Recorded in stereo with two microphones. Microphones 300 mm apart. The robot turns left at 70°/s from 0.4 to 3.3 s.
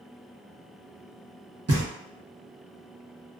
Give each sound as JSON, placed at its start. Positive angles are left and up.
{"t": 1.7, "sound": "knocking", "side_deg": -50, "distance_m": 0.9}